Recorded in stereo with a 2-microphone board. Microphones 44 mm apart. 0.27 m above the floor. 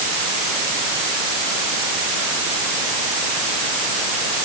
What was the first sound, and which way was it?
Only background noise.